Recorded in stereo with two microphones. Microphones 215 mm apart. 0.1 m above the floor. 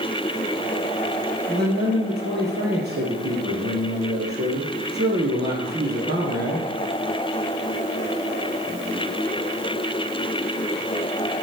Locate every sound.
1.5 s a man speaking: 50° right (ahead or behind), 2.5 m